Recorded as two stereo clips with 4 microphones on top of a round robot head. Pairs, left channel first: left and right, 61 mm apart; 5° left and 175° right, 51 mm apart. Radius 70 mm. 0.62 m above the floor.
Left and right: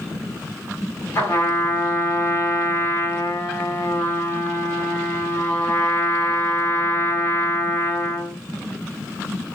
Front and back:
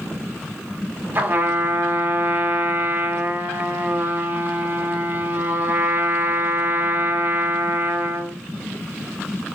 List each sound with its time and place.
1.1 s a trumpet: 140° left, 1.9 m